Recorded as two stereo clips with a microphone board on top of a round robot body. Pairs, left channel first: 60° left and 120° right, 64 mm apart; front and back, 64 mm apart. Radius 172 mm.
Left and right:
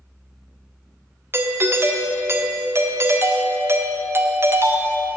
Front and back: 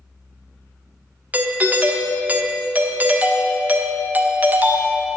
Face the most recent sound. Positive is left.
turn(degrees=-130)